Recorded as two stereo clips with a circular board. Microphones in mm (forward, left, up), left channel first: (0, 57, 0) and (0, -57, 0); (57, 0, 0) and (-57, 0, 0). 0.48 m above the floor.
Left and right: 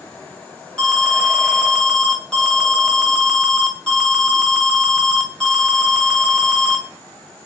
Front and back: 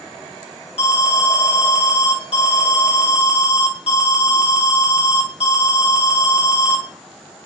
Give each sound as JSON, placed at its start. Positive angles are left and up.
{"t": 0.8, "sound": "an alarm", "azimuth_deg": 5, "distance_m": 2.0}